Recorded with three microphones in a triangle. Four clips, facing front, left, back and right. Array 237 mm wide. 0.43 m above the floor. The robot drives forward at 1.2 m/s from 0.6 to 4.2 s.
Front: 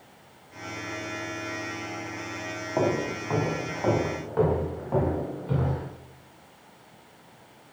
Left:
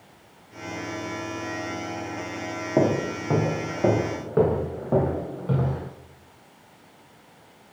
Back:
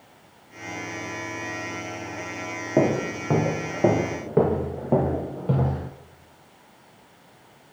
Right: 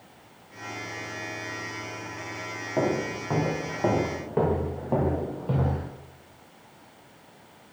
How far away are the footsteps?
About 3.5 m.